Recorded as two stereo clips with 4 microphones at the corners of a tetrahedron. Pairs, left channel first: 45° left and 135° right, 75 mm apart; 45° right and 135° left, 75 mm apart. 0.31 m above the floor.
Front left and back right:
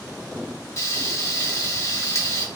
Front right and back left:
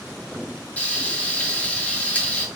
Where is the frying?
20° left, 1.4 m.